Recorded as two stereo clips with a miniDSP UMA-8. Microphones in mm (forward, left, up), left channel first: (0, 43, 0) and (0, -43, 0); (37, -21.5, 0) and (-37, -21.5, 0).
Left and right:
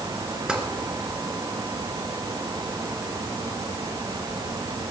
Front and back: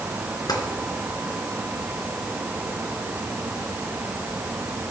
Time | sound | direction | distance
0.5 | tapping | 10° right | 2.5 m